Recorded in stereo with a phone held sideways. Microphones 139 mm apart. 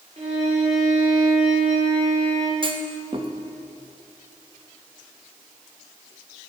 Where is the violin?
50° right (ahead or behind), 3 m.